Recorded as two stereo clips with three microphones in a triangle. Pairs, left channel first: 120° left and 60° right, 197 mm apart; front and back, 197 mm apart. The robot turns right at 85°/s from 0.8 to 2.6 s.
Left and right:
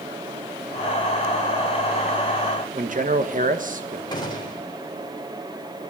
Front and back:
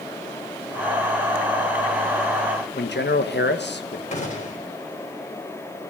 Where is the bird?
I don't hear a bird.